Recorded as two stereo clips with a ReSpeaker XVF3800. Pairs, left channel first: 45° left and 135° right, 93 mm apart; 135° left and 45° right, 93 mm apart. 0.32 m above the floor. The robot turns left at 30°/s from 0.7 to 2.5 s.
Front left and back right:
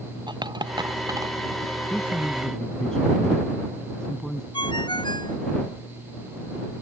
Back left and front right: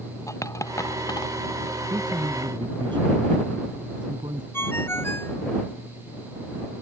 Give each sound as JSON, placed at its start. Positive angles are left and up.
{"t": 0.3, "sound": "a dropped coin", "azimuth_deg": -170}
{"t": 1.9, "sound": "a man speaking", "azimuth_deg": -20}
{"t": 4.5, "sound": "a ringtone", "azimuth_deg": 70}